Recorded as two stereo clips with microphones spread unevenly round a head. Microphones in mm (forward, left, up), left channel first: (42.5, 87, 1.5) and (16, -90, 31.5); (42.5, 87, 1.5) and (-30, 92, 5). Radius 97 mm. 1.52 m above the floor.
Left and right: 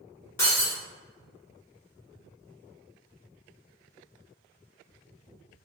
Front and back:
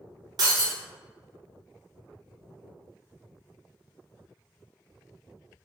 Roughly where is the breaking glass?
Behind.